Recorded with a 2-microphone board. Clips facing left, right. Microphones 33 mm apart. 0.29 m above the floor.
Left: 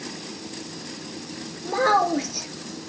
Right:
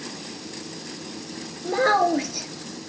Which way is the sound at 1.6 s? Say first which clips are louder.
Even; 10° right (ahead or behind).